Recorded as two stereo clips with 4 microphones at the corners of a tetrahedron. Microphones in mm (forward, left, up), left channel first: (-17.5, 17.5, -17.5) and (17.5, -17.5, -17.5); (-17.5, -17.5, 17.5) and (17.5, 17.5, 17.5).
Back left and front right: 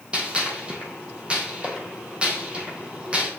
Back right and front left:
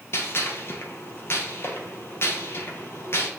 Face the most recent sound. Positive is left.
turn(degrees=-110)